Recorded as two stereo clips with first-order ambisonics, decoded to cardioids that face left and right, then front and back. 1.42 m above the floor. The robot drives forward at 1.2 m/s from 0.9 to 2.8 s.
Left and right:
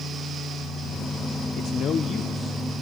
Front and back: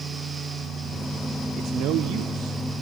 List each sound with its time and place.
1.6 s a man speaking: 120° left, 0.5 m; by 2.6 s 165° left, 1.6 m